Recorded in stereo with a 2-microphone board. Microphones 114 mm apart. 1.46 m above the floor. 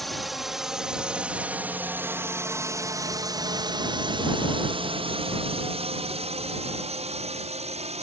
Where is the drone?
Centre (ahead or behind); by 8.0 s 70° right (ahead or behind).